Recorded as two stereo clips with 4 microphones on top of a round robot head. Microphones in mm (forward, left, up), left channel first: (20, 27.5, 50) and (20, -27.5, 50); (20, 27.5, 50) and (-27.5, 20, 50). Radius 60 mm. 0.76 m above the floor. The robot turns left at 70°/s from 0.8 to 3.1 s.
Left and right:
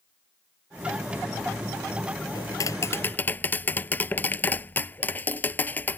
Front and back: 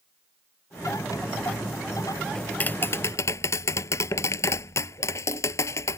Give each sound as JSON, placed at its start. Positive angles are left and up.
{"t": 2.4, "sound": "tapping", "azimuth_deg": 85}